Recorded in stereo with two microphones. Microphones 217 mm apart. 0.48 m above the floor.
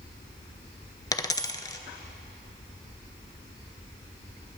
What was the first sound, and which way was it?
A dropped coin, 15° left (ahead or behind).